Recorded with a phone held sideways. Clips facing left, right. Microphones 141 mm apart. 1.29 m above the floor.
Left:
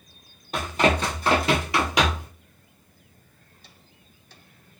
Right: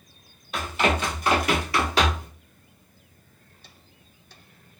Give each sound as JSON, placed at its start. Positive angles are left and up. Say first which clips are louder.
{"t": 0.5, "sound": "running footsteps", "louder": "left 2 dB", "side_deg": 40, "distance_m": 1.7}